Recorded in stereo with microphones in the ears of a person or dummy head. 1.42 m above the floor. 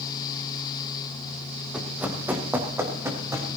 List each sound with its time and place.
1.7 s running footsteps: 10° right (ahead or behind), 3 m; by 3.5 s 20° right (ahead or behind), 4.5 m